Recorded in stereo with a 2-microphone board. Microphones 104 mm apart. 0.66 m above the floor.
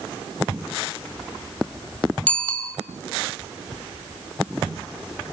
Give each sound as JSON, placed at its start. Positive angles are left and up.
{"t": 2.3, "sound": "a bicycle bell", "side_deg": 10, "distance_m": 2.5}